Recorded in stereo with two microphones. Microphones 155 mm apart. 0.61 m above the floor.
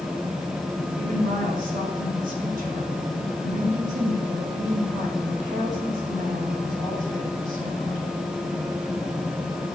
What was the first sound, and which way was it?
A woman speaking, 60° right (ahead or behind).